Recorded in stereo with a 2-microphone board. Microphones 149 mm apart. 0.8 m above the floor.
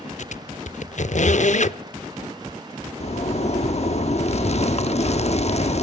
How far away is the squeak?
About 0.6 m.